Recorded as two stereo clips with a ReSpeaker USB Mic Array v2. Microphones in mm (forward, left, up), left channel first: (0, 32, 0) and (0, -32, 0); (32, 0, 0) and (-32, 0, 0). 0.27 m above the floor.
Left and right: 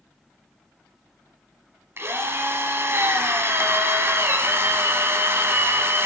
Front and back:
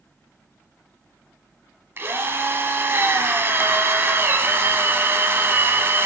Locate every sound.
2.0 s a drill: 130° right, 1.1 m